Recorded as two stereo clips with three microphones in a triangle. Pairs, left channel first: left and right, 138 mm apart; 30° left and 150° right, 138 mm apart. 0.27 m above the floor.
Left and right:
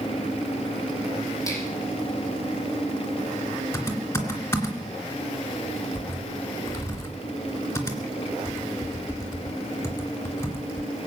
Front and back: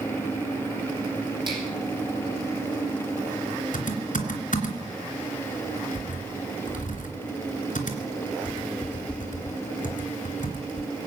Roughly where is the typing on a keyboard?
Ahead.